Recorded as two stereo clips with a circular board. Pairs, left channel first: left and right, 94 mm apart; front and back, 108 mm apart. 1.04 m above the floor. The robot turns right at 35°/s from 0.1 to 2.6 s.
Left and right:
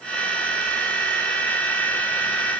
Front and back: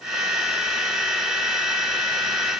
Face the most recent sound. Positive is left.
No sound to turn to.